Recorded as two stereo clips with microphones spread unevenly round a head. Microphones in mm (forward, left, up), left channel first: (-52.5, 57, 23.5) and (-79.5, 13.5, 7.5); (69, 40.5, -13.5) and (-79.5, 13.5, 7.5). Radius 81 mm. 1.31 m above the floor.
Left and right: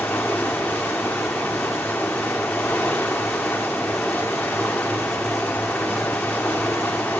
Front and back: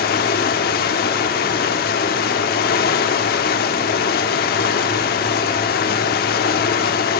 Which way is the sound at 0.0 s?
Straight ahead.